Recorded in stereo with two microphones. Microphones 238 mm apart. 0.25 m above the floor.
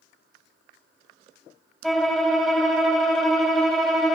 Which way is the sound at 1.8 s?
Centre (ahead or behind).